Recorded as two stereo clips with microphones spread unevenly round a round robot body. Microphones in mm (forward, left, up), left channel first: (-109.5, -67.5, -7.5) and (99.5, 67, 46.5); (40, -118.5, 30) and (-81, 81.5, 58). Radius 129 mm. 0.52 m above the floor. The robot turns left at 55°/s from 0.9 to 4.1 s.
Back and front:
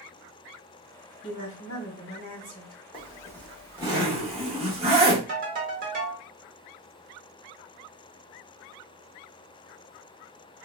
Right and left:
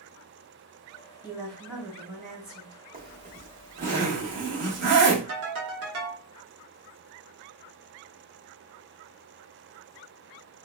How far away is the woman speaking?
About 1.7 m.